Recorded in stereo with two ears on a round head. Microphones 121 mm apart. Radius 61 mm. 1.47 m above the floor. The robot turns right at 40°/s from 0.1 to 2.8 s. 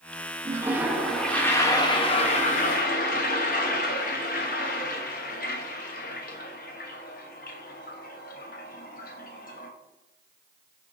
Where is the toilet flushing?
25° right, 0.9 m; by 9.7 s 70° left, 0.9 m.